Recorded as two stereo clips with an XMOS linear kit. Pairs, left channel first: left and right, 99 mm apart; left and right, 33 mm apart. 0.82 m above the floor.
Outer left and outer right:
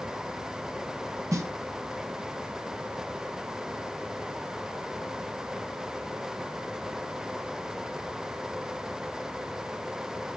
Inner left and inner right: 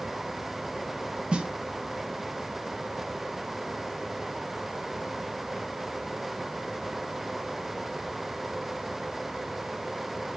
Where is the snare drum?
30° right (ahead or behind), 0.6 m.